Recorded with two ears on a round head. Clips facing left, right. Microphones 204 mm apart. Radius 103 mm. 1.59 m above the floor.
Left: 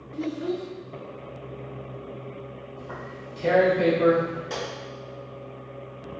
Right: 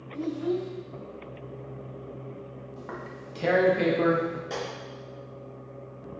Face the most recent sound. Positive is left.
turn(degrees=0)  # may be behind; listen again after turning